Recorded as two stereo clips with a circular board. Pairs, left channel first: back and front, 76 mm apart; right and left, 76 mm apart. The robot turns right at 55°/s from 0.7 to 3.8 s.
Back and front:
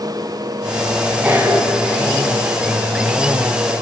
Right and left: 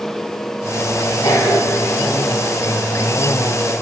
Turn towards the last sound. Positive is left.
turn(degrees=75)